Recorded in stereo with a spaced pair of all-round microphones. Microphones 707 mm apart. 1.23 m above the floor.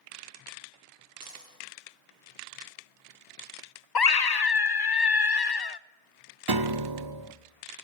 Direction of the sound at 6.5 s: 35° right (ahead or behind).